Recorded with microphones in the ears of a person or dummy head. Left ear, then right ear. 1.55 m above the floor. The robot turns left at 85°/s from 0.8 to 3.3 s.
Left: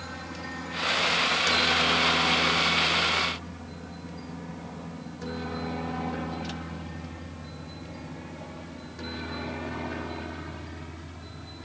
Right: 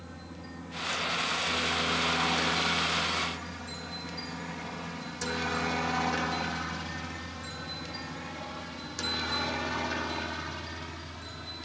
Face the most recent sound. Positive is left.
turn(degrees=-40)  # may be behind; listen again after turning